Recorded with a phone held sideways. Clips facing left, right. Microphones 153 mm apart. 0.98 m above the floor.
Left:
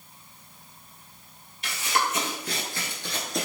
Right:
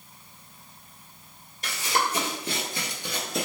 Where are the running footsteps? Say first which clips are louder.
Even; 40° right (ahead or behind), 1.4 m; by 3.5 s centre (ahead or behind), 1.0 m.